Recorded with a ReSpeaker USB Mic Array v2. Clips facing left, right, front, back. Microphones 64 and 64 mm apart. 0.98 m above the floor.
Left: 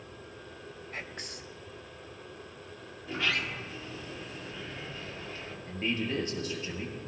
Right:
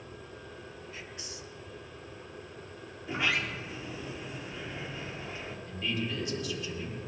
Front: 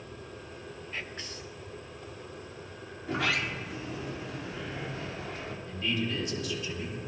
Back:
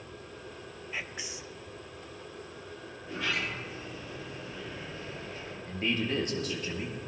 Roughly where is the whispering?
Left.